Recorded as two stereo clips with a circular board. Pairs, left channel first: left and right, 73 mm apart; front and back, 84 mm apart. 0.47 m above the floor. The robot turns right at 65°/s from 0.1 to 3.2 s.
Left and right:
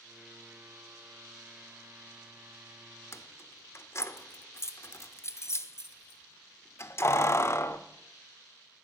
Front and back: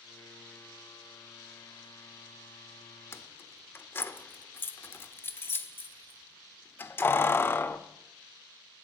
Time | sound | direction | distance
3.1 | keys jangling | 50° left | 0.5 m